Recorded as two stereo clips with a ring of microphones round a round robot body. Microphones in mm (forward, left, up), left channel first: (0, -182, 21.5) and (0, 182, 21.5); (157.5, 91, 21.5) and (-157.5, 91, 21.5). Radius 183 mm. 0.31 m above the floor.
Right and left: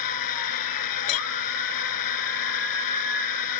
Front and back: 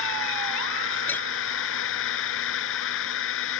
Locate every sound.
0.0 s a drone: 55° right
1.1 s a clink: 85° right